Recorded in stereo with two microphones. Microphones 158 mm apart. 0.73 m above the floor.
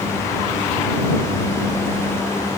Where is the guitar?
No guitar in this recording.